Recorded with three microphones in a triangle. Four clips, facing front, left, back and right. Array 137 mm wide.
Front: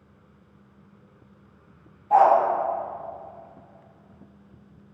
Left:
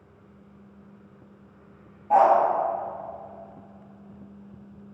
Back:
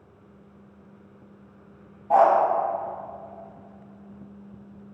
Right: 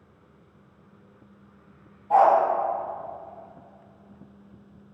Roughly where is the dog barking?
Behind.